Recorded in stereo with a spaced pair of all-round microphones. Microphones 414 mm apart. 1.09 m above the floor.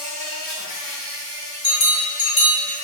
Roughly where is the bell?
Left.